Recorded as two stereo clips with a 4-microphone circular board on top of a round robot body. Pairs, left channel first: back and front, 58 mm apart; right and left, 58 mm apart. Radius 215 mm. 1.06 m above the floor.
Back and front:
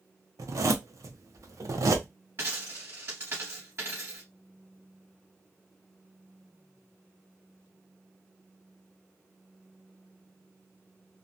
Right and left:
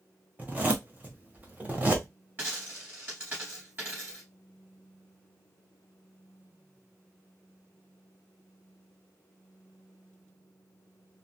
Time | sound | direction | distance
0.4 | a zipper | 30° left | 0.7 m
2.4 | a dropped coin | 40° left | 1.5 m